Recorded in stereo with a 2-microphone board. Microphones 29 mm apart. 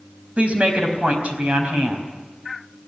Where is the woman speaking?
55° right (ahead or behind), 4 m.